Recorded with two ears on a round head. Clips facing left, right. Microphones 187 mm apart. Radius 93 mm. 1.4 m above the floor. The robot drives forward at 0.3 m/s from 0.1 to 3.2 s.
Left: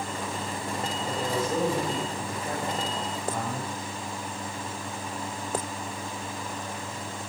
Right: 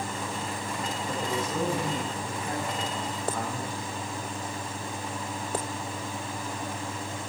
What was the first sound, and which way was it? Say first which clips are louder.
A man speaking: left 3 dB; 55° left (ahead or behind).